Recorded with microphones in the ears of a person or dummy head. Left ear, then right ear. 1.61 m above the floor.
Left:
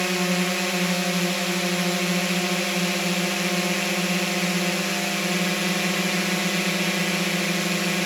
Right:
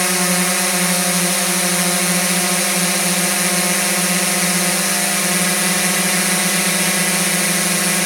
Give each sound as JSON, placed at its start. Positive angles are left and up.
{"t": 0.0, "sound": "a drone", "side_deg": -45}